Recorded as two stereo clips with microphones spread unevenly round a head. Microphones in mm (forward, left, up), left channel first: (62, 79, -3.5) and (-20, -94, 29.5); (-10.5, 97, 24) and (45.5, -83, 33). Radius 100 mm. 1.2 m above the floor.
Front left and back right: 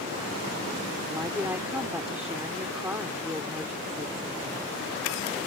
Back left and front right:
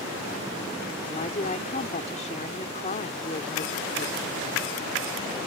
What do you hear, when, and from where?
1.1 s a woman speaking: 165° left